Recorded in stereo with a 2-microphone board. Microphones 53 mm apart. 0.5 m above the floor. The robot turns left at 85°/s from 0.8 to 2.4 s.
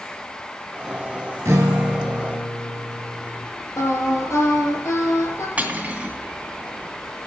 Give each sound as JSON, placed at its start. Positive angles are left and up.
{"t": 1.4, "sound": "a guitar", "azimuth_deg": -115, "distance_m": 3.5}
{"t": 3.8, "sound": "singing", "side_deg": 55, "distance_m": 4.0}
{"t": 5.6, "sound": "cutlery clinking", "side_deg": -25, "distance_m": 3.0}